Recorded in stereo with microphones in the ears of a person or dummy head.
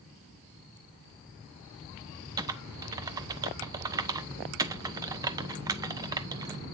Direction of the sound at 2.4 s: 20° right (ahead or behind).